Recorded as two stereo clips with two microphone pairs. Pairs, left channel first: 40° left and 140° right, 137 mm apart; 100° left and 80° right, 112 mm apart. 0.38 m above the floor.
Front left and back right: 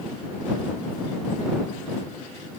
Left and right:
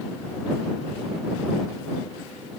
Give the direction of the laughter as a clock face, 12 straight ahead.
No laughter in this recording.